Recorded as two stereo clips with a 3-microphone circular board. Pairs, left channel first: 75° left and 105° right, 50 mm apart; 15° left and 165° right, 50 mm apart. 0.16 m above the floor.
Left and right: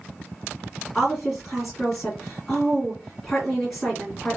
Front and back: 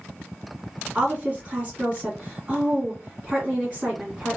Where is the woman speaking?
160° left, 1.8 m.